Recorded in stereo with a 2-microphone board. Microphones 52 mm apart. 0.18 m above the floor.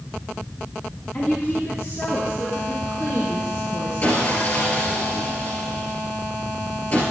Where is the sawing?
35° left (ahead or behind), 3 m.